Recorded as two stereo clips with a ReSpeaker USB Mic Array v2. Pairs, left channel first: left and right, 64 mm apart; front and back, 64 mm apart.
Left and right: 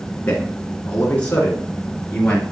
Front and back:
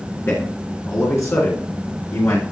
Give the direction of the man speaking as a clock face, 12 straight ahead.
11 o'clock.